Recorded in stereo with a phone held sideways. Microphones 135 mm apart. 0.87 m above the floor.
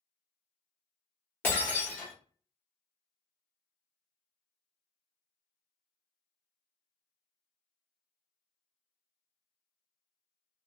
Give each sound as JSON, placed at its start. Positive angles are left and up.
{"t": 1.4, "sound": "breaking glass", "side_deg": 15, "distance_m": 1.4}